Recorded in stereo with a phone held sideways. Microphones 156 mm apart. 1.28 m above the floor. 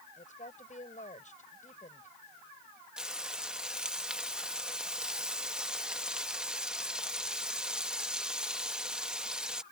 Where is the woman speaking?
55° left (ahead or behind).